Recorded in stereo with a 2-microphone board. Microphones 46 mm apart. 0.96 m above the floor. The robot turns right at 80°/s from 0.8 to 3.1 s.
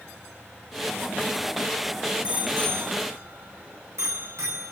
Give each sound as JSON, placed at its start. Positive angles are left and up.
{"t": 2.2, "sound": "a bicycle bell", "side_deg": -25, "distance_m": 6.0}